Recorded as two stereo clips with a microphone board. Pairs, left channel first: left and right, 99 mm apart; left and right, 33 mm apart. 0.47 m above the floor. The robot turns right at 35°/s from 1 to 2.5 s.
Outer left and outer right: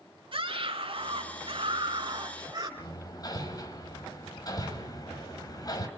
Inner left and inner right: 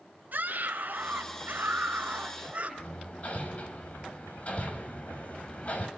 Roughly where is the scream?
Right.